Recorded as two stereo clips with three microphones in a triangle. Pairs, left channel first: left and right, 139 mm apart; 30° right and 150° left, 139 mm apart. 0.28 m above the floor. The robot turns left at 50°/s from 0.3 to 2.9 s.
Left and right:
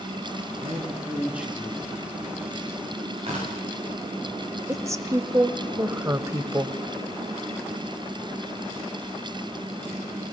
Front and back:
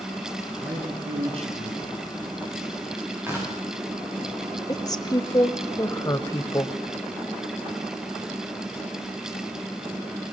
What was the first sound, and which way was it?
A man speaking, 130° right.